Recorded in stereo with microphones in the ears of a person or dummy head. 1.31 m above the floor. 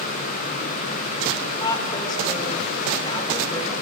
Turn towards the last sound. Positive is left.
turn(degrees=25)  # may be behind; listen again after turning